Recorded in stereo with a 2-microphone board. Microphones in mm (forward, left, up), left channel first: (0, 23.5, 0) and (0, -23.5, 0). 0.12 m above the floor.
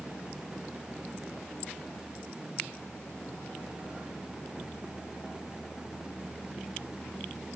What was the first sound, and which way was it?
Only background noise.